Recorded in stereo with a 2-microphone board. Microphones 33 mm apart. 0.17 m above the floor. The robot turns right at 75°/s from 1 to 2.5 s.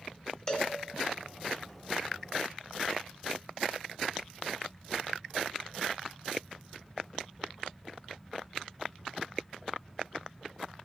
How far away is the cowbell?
About 2.5 m.